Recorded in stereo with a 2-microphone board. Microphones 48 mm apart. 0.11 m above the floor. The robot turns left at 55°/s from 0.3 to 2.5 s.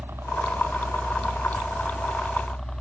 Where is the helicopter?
70° right; by 2.8 s 165° left.